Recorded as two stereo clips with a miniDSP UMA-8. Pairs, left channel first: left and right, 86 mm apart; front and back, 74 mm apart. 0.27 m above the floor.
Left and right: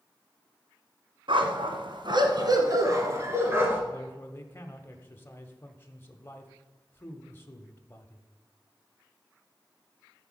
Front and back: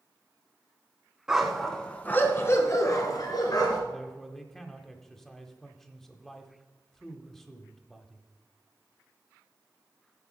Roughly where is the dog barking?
Right.